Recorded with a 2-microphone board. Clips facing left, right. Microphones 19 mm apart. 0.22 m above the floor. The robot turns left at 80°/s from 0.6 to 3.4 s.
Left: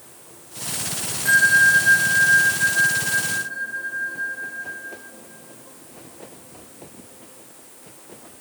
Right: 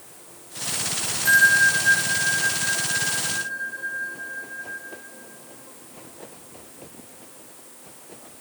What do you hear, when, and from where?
1.2 s a bell: 170° left, 2.5 m; by 4.8 s straight ahead, 2.5 m